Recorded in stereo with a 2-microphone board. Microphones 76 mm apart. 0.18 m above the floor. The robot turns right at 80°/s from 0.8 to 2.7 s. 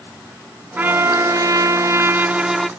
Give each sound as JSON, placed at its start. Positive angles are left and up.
{"t": 0.8, "sound": "a trumpet", "azimuth_deg": -150, "distance_m": 0.6}